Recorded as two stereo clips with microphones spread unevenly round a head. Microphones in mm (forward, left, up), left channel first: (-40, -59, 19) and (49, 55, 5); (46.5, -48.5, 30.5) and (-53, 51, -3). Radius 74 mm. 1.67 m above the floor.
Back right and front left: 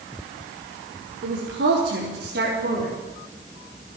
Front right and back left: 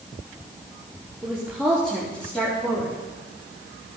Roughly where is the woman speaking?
Ahead left.